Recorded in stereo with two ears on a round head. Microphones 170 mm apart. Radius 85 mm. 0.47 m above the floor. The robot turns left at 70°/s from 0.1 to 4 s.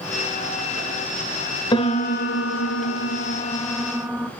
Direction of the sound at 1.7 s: 155° left.